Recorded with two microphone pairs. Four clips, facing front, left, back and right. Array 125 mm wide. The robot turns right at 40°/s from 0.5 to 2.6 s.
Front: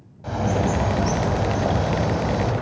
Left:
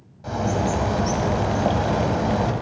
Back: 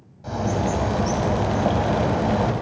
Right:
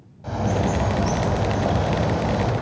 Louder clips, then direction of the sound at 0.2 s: Even, front 1 dB; 45° left.